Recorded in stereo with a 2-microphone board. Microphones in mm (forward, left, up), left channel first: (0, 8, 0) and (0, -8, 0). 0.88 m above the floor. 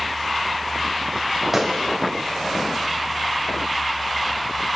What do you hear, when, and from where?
1.5 s a gunshot: 10° right (ahead or behind), 3 m